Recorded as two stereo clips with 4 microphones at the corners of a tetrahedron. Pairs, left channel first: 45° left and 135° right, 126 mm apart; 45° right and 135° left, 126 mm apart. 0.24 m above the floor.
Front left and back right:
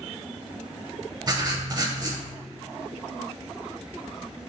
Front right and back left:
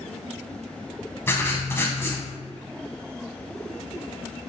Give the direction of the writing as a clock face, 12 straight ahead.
3 o'clock.